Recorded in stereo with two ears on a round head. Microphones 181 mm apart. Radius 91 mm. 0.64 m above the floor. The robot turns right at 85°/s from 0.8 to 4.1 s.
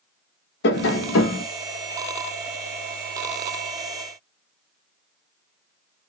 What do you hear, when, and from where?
0.6 s tapping: 60° left, 1.0 m; by 1.4 s 115° left, 1.0 m